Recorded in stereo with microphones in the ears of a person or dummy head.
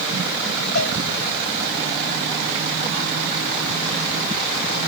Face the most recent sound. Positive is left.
turn(degrees=55)  # may be behind; listen again after turning